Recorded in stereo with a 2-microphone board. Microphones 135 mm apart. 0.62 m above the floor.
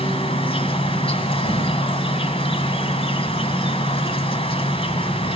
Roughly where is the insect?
Left.